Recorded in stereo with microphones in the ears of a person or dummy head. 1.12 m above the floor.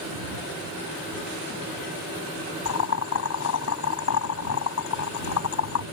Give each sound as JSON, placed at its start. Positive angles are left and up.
{"t": 2.6, "sound": "boiling", "side_deg": 75}